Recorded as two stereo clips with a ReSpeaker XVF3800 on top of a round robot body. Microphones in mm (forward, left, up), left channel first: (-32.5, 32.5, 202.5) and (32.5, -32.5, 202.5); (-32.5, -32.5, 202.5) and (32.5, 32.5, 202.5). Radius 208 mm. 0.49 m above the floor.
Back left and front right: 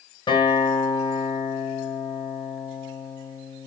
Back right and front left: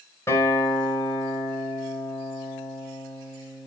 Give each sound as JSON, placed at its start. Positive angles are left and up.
{"t": 0.3, "sound": "a guitar", "azimuth_deg": 165, "distance_m": 4.0}